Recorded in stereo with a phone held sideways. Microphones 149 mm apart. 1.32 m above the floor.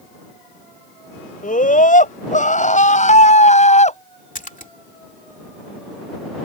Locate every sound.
1.4 s a scream: 65° left (ahead or behind); by 4.0 s 50° left (ahead or behind)
4.3 s a splash: 60° left (ahead or behind)